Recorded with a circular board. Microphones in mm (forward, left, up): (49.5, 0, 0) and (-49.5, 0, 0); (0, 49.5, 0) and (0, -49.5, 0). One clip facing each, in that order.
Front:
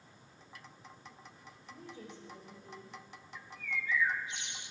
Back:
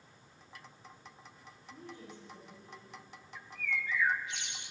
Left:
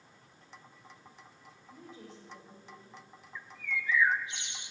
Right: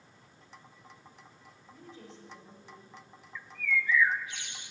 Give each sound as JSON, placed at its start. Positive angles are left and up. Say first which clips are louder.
{"t": 1.7, "sound": "a woman speaking", "louder": "even, even", "azimuth_deg": 5, "distance_m": 4.5}
{"t": 3.4, "sound": "a bird", "louder": "back 2 dB, right 6 dB", "azimuth_deg": 160, "distance_m": 0.6}